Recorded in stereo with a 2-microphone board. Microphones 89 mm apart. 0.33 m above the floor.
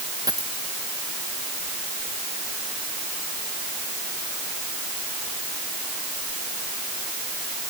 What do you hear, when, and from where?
0.3 s a dropped coin: 45° right (ahead or behind)